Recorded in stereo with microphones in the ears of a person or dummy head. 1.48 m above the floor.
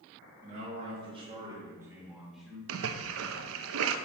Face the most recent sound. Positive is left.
turn(degrees=-75)  # may be behind; listen again after turning